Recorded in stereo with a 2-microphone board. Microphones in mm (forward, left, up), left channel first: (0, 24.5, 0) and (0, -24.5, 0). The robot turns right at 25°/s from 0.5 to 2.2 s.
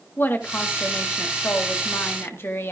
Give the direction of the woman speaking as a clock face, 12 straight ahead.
10 o'clock.